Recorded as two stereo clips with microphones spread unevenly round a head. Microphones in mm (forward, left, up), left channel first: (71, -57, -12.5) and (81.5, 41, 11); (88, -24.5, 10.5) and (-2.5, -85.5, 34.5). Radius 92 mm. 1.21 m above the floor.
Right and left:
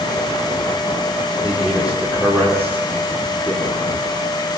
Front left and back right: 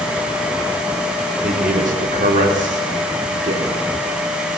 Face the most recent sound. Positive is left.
turn(degrees=-165)